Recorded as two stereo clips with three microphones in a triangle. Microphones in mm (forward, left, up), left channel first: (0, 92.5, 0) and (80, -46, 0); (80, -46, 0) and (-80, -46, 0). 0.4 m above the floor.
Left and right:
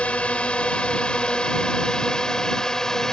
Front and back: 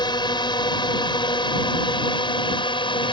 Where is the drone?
40° left; by 3.1 s 35° left.